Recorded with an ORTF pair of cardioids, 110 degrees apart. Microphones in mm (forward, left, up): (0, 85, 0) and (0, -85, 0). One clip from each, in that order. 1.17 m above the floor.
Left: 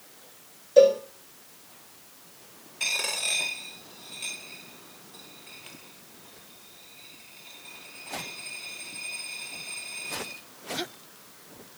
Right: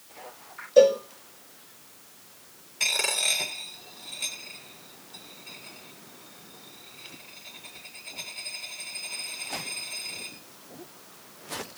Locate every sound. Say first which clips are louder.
0.8 s a cowbell: even; 5° right, 5 m
2.8 s a dropped coin: right 3 dB; 25° right, 7.5 m